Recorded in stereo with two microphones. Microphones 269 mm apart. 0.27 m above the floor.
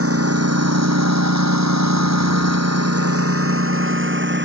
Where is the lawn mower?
60° right (ahead or behind); by 4.5 s 45° right (ahead or behind).